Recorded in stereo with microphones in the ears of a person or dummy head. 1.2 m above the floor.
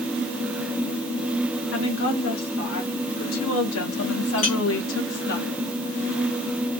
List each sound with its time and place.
1.7 s a woman speaking: 75° left (ahead or behind), 3 m; by 5.4 s 40° left (ahead or behind), 0.8 m
4.4 s a clink: 35° left (ahead or behind), 0.6 m